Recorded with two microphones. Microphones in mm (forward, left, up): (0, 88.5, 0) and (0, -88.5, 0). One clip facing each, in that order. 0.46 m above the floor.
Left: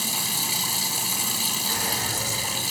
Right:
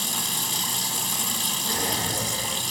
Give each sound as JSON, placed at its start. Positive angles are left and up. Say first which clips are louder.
{"t": 0.0, "sound": "running water", "louder": "left 1 dB", "side_deg": 5, "distance_m": 3.5}
{"t": 1.7, "sound": "a drawer", "louder": "right 4 dB", "side_deg": -30, "distance_m": 4.5}